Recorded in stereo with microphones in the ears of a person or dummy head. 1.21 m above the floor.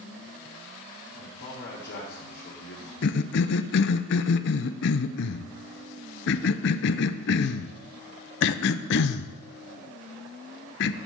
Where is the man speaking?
65° left (ahead or behind), 2.5 m.